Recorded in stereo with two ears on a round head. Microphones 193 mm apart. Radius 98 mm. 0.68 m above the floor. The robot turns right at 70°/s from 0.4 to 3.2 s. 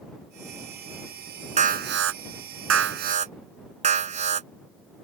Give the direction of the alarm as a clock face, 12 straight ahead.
5 o'clock.